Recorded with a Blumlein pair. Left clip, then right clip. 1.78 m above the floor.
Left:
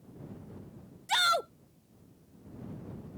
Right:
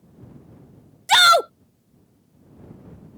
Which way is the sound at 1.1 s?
60° right.